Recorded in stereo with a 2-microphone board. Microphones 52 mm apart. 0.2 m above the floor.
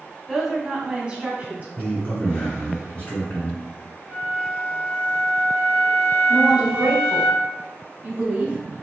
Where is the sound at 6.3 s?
25° right (ahead or behind), 1.1 m.